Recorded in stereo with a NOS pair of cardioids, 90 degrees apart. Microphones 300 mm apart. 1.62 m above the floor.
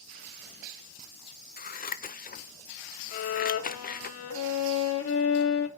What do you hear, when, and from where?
1.6 s scissors: 30° left, 0.7 m
3.1 s a violin: 50° left, 1.4 m